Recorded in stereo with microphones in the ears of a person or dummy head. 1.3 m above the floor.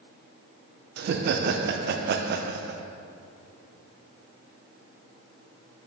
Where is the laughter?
50° right (ahead or behind), 0.5 m.